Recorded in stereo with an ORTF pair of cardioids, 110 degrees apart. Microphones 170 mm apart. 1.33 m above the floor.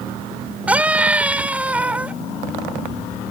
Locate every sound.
0.7 s a scream: 10° right